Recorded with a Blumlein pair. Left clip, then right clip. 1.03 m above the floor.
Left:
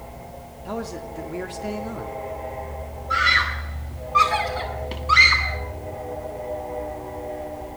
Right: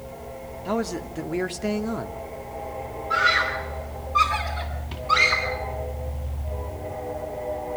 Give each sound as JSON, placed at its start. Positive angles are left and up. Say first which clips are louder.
{"t": 0.7, "sound": "a man speaking", "louder": "right 4 dB", "azimuth_deg": -15, "distance_m": 2.5}
{"t": 3.1, "sound": "a scream", "louder": "left 2 dB", "azimuth_deg": 65, "distance_m": 8.5}